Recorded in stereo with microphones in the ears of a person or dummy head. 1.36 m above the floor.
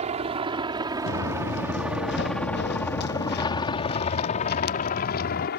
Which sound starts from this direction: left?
Footsteps, at 1.1 s.